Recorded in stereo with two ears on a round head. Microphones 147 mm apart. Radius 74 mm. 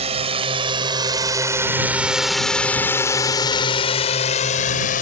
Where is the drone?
40° right (ahead or behind); by 5.0 s 55° left (ahead or behind).